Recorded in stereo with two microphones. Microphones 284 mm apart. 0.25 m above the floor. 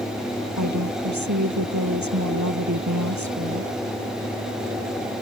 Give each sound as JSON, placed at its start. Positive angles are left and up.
{"t": 0.6, "sound": "a woman speaking", "side_deg": -80}